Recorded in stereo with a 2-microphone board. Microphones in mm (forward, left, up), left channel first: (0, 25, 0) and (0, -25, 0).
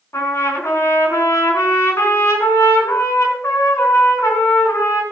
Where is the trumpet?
70° left (ahead or behind), 4 m.